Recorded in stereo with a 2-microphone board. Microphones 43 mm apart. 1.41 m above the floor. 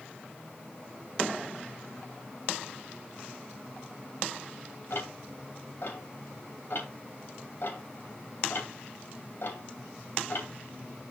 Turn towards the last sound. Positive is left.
turn(degrees=60)  # may be behind; listen again after turning